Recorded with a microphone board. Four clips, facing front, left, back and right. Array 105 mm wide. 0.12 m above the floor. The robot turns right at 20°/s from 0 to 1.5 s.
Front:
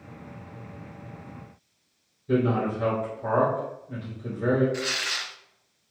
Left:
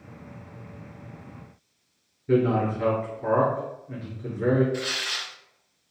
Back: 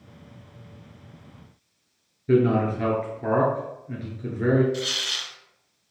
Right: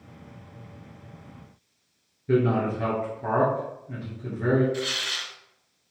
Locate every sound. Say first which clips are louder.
2.3 s a man speaking: left 1 dB, back 4 dB; 175° left, 1.7 m
4.7 s tearing paper: even, front 1 dB; 20° left, 0.6 m